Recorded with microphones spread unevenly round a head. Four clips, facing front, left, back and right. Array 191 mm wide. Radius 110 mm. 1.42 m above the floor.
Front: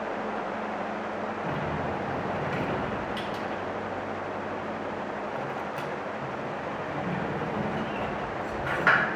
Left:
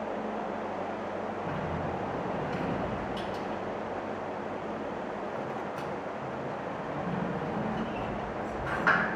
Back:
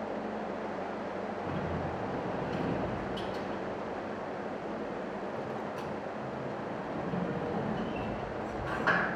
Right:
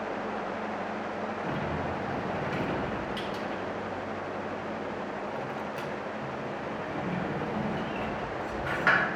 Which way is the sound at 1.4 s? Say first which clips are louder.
Right 1 dB, front 5 dB; 35° right.